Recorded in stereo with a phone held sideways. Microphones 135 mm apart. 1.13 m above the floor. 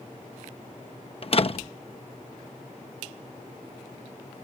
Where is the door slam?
45° left (ahead or behind).